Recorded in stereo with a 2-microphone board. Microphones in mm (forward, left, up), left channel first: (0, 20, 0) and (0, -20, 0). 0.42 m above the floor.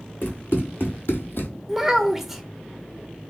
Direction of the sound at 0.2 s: 50° left (ahead or behind).